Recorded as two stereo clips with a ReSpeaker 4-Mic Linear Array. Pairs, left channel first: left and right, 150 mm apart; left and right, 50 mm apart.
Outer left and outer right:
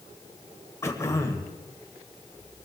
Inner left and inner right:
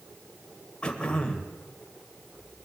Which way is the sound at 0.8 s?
20° left (ahead or behind).